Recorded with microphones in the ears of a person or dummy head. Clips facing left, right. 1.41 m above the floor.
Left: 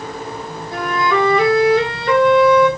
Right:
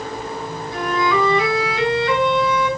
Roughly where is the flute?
Left.